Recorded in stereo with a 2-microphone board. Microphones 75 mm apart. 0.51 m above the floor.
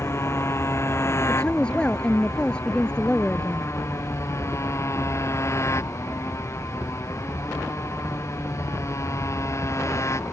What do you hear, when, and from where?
0.0 s a motorcycle: 40° left (ahead or behind); by 10.3 s 45° left (ahead or behind)
1.3 s a woman speaking: 15° left (ahead or behind)